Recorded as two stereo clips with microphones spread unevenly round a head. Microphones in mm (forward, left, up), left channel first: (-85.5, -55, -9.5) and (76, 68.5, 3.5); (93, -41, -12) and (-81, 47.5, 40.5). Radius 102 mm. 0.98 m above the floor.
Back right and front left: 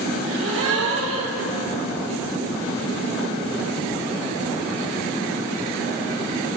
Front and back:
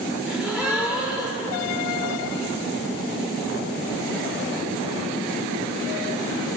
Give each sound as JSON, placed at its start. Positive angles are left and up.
{"t": 0.3, "sound": "a gasp", "azimuth_deg": 60, "distance_m": 1.4}